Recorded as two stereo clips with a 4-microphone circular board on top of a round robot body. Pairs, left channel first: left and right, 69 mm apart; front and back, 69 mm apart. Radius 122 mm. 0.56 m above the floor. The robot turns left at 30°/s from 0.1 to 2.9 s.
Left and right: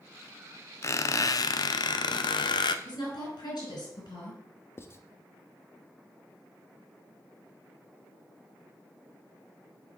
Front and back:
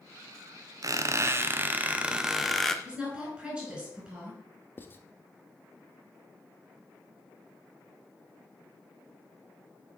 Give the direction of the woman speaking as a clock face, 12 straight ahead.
9 o'clock.